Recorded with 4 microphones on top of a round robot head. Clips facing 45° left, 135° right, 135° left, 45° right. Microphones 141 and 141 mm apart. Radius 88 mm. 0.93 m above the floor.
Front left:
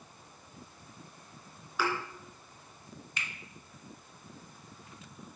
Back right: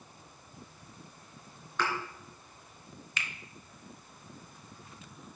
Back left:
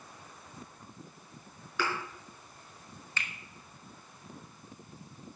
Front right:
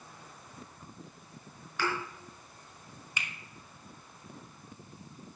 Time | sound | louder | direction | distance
1.8 | a thud | front left 1 dB, even | 130° left | 3.5 m
3.2 | a finger snap | back right 2 dB, even | 120° right | 1.1 m